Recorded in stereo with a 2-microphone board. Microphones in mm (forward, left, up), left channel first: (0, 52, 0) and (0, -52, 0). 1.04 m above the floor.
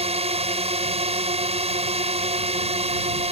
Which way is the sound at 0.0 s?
75° right (ahead or behind).